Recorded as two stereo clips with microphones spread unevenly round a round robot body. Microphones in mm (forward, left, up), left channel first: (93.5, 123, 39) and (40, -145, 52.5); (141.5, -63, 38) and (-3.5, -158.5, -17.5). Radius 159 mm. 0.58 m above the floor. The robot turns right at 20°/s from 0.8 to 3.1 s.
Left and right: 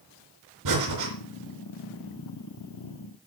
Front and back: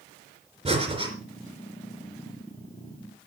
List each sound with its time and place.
0.7 s breathing: 90° right, 4 m; by 1.1 s 85° right, 4 m